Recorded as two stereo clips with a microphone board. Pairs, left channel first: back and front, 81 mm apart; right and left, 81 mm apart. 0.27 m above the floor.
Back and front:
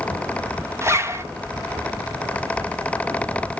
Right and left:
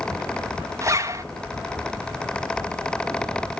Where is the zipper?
45° left, 1.1 m.